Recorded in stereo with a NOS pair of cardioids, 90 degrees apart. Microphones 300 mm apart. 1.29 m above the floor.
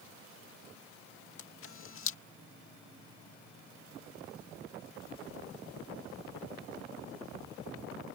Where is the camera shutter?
45° left.